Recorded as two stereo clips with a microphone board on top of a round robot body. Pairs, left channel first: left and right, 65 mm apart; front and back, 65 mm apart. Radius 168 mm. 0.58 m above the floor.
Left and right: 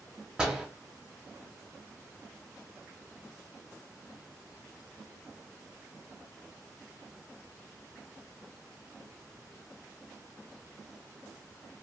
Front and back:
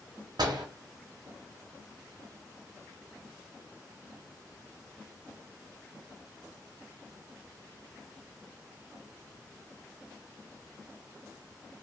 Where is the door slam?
170° right, 1.3 m.